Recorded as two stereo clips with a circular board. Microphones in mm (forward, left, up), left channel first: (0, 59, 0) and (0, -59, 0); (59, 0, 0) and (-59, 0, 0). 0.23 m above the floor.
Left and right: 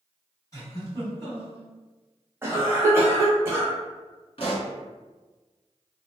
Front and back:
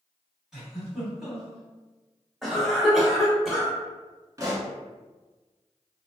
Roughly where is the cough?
Right.